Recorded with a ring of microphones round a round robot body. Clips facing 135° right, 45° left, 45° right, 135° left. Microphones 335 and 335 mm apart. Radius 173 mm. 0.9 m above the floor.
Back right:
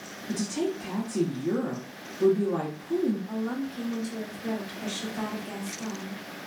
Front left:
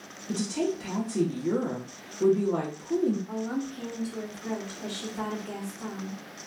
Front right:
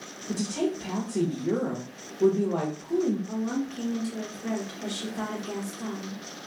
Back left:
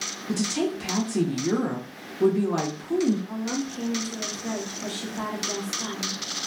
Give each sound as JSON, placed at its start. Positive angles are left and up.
{"t": 0.3, "sound": "a woman speaking", "azimuth_deg": 145, "distance_m": 0.8}
{"t": 3.3, "sound": "a woman speaking", "azimuth_deg": -130, "distance_m": 1.1}